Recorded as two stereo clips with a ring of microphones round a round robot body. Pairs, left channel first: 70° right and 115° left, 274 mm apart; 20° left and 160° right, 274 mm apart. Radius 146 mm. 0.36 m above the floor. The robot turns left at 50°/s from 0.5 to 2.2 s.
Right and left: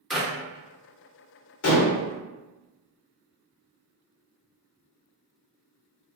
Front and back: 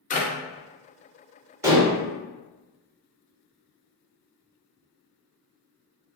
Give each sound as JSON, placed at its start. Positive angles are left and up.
{"t": 0.1, "sound": "a clap", "azimuth_deg": 25, "distance_m": 0.7}
{"t": 1.6, "sound": "dishes clattering", "azimuth_deg": -80, "distance_m": 0.8}